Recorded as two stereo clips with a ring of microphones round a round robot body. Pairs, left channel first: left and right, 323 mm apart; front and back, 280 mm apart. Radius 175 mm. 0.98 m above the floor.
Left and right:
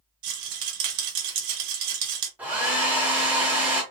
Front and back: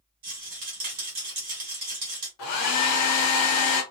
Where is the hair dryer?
5° right, 0.6 m.